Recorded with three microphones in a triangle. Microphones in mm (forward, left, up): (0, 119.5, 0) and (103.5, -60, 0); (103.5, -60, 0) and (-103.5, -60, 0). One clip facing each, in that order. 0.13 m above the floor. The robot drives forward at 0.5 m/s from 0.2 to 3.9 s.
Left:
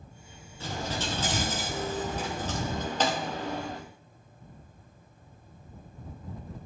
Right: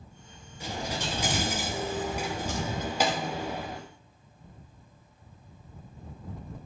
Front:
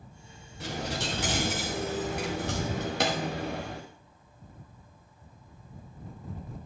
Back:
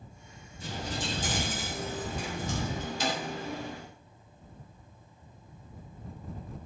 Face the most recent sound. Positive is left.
turn(degrees=25)